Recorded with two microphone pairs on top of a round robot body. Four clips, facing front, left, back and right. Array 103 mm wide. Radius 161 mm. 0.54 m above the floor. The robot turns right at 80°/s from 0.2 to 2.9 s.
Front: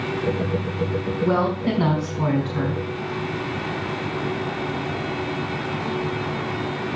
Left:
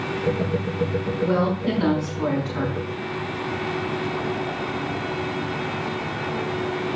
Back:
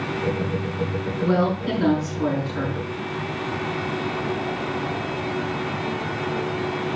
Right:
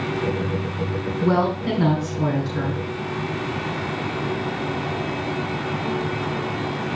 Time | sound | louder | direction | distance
1.2 | a woman speaking | right 2 dB, even | 65° right | 5.5 m